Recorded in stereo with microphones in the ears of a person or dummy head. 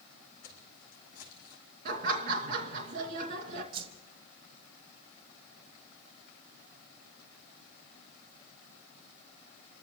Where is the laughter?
50° right (ahead or behind), 2.0 m.